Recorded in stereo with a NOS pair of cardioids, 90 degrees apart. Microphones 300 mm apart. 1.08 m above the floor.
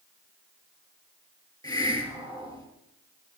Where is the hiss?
15° left, 4.5 m.